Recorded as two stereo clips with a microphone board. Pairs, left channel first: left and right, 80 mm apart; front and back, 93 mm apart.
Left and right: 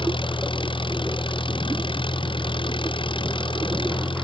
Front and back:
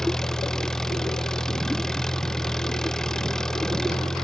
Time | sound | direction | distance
0.0 | an engine running | 85° left | ?